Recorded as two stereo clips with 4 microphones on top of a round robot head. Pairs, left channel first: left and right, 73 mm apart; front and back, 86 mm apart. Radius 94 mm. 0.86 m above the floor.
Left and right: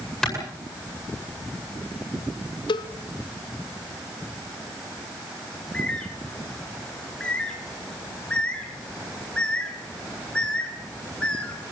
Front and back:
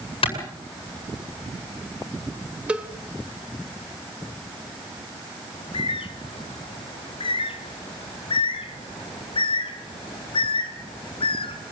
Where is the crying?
No crying in this recording.